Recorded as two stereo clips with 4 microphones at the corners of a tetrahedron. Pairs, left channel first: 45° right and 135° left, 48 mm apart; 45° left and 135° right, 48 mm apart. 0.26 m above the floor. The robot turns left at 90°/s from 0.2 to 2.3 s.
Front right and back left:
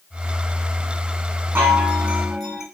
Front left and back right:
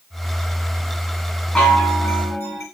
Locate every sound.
1.6 s a chime: 115° left, 1.3 m; by 2.6 s 45° left, 1.3 m